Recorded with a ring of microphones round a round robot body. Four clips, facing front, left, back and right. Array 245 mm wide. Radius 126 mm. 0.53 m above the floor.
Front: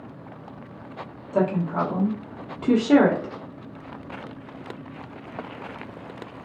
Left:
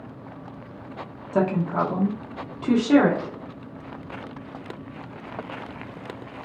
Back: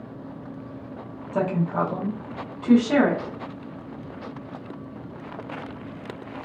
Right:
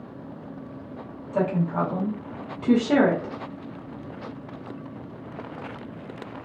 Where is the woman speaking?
90° left, 1.1 m; by 3.3 s straight ahead, 1.4 m.